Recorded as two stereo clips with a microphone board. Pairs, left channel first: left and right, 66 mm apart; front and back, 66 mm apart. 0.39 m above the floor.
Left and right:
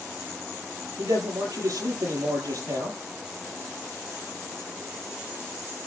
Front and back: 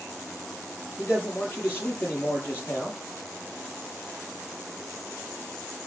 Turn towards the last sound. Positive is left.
turn(degrees=-60)